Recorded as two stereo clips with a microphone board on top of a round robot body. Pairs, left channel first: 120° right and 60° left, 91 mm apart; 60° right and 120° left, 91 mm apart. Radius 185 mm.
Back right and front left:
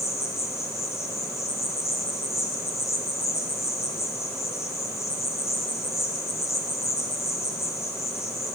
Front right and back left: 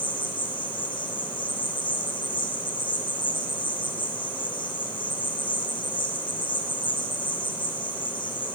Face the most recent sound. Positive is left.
turn(degrees=-65)